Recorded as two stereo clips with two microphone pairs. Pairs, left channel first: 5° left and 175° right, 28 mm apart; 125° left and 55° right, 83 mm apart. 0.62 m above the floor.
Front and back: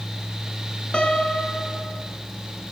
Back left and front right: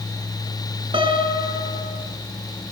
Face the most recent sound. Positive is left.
turn(degrees=-45)